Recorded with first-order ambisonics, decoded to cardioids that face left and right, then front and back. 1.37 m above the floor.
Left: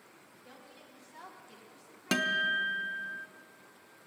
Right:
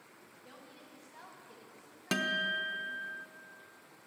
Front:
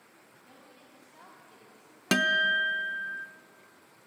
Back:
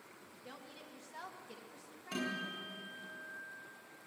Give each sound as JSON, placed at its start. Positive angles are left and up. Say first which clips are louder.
{"t": 0.2, "sound": "a woman speaking", "louder": "even, back 4 dB", "azimuth_deg": -165, "distance_m": 2.0}
{"t": 2.1, "sound": "a guitar", "louder": "left 3 dB, front 17 dB", "azimuth_deg": 10, "distance_m": 0.5}